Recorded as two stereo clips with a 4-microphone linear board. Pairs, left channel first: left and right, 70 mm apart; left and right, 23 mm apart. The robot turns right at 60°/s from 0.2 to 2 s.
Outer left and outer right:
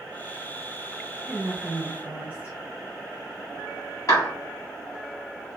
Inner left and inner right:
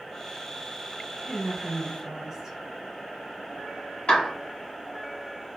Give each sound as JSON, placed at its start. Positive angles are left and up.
{"t": 1.2, "sound": "a woman speaking", "azimuth_deg": -80, "distance_m": 1.4}
{"t": 4.1, "sound": "a clap", "side_deg": 55, "distance_m": 1.5}